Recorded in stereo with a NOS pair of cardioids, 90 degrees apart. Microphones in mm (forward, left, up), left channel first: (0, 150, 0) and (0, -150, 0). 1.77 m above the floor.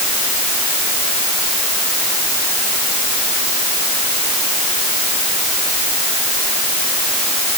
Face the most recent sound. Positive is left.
No sound to turn to.